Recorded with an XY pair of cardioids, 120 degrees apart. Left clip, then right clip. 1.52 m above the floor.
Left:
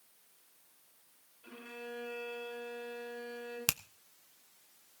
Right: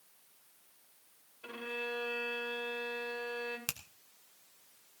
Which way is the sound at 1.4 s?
70° right.